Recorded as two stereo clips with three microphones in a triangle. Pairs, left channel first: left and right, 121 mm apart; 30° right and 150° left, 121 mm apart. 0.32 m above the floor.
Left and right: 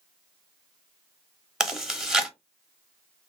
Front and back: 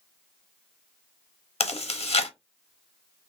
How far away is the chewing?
About 0.6 m.